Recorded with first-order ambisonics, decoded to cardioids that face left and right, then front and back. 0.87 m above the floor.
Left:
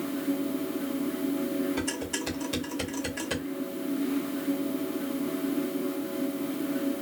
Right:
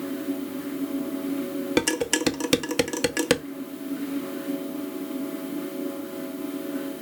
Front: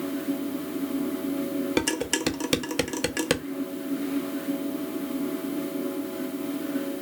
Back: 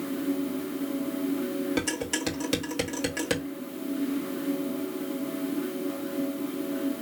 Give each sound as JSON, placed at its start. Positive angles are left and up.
{"t": 1.8, "sound": "dishes clattering", "azimuth_deg": -65, "distance_m": 0.5}